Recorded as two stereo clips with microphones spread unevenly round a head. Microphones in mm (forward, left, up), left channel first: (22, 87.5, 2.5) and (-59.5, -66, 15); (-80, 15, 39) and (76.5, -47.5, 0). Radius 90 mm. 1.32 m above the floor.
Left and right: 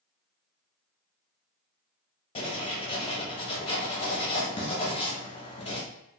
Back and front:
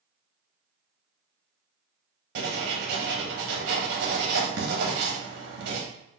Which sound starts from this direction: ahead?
Writing, at 2.4 s.